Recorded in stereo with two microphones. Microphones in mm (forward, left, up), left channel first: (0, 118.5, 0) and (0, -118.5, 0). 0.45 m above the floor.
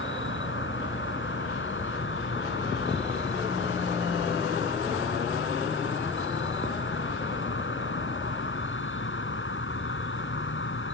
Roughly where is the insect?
Left.